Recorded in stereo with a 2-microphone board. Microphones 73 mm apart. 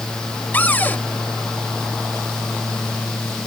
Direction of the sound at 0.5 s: 25° left (ahead or behind).